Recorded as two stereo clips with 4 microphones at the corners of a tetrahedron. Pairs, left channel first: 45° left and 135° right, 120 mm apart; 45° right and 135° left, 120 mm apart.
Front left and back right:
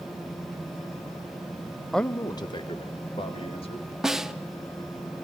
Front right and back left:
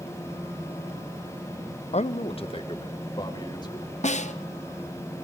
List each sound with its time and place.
1.9 s a man speaking: 45° right, 0.5 m; by 3.9 s 5° left, 3 m
4.0 s a snare drum: 50° right, 0.8 m